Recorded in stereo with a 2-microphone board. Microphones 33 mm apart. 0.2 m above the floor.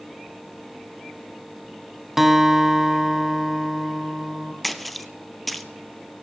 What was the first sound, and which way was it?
A guitar, 10° right (ahead or behind).